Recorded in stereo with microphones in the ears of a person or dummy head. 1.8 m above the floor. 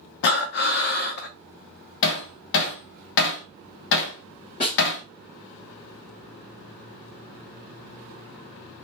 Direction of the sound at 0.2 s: 60° left (ahead or behind).